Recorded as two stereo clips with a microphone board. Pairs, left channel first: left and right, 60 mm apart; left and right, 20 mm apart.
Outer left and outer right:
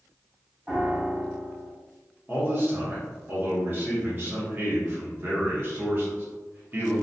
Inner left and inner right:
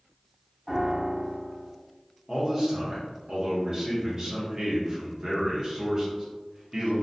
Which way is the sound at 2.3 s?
35° right (ahead or behind).